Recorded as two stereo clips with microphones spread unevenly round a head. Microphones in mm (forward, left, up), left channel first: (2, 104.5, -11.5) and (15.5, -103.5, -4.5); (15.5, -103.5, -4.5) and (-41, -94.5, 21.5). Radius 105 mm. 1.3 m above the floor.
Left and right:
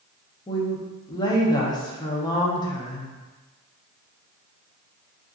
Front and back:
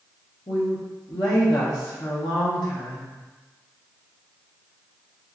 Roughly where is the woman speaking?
Ahead.